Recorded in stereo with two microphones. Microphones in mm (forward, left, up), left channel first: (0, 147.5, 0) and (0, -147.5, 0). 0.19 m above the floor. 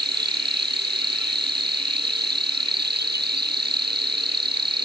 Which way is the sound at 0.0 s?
35° right (ahead or behind).